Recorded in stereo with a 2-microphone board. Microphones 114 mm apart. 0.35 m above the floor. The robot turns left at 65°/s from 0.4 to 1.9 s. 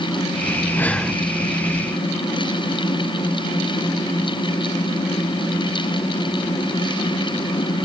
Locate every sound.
0.8 s breathing: 20° left (ahead or behind), 1.3 m; by 1.2 s 5° right (ahead or behind), 1.3 m